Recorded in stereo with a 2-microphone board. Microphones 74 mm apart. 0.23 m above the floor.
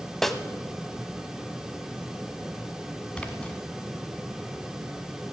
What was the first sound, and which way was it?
A snare drum, 5° left (ahead or behind).